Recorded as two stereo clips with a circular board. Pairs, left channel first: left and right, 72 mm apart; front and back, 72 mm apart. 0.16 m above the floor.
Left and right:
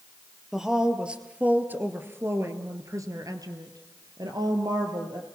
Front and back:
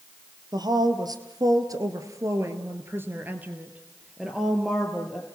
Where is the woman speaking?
175° right, 3 m; by 5.2 s 90° right, 3.5 m.